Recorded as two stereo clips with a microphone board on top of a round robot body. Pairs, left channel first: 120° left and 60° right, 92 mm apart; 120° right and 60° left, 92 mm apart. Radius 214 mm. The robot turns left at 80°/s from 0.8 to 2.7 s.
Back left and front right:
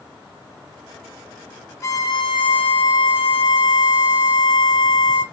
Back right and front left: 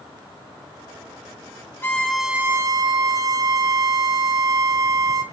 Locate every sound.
1.8 s a violin: 175° left, 0.8 m; by 5.2 s 105° left, 0.8 m